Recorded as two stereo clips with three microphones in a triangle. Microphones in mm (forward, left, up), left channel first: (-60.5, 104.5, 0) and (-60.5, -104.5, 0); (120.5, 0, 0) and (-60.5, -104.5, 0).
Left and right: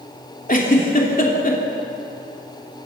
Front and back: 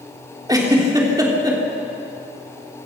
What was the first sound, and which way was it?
A giggle, 140° left.